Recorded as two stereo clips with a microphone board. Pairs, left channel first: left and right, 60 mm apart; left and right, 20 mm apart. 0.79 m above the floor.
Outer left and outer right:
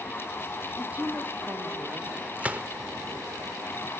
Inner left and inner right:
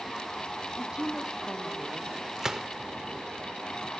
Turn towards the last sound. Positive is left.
turn(degrees=-25)  # may be behind; listen again after turning